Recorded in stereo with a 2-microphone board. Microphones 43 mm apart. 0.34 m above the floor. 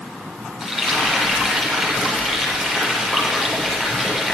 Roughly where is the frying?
Centre.